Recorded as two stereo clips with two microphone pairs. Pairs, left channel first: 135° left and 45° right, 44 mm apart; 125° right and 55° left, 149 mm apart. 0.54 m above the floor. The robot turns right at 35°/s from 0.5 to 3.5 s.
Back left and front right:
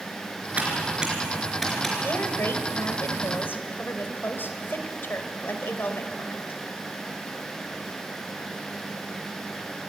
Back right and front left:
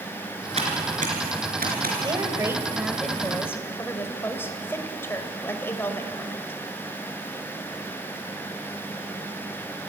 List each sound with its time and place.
0.6 s typing on a keyboard: 5° left, 4 m; by 1.9 s 55° left, 4 m
2.0 s a woman speaking: 110° left, 2.0 m; by 6.6 s 160° left, 2.0 m